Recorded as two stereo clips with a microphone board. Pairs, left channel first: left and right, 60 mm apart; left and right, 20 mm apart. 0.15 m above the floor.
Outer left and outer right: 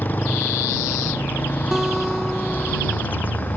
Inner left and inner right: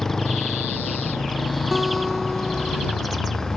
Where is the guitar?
10° right (ahead or behind).